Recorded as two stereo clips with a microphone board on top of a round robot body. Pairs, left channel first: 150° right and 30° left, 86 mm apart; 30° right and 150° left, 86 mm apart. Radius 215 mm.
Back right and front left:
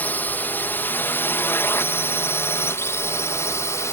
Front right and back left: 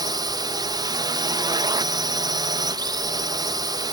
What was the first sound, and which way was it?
A drone, 145° left.